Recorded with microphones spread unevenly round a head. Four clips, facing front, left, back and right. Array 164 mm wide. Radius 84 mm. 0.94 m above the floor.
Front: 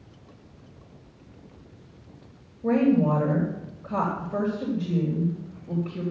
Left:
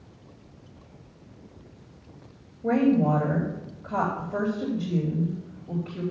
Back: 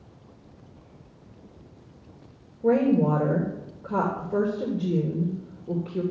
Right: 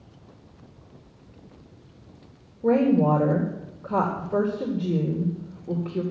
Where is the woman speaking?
130° right, 3 m.